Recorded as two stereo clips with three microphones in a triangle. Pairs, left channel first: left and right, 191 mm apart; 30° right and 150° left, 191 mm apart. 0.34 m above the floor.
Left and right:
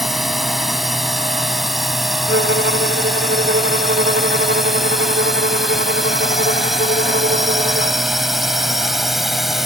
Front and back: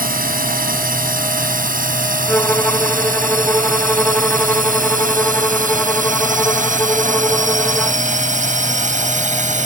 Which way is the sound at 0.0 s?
Straight behind.